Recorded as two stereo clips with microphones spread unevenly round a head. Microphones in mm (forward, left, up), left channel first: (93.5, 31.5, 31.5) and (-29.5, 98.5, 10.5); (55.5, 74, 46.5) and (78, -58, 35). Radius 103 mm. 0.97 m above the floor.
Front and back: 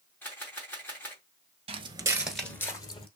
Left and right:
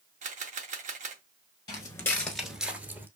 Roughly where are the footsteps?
Behind left.